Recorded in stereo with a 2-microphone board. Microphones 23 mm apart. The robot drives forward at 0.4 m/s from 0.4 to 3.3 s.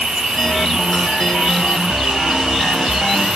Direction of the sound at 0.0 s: 55° right (ahead or behind).